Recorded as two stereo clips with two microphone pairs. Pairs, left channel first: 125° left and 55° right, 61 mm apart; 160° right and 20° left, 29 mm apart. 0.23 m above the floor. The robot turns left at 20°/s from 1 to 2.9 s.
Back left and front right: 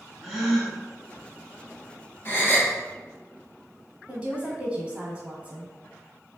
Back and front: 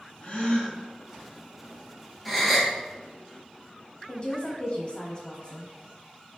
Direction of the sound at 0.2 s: 145° right.